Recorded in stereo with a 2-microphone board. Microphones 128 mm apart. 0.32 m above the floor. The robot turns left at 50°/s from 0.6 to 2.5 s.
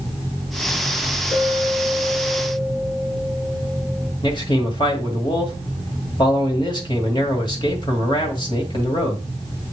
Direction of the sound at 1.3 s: 175° left.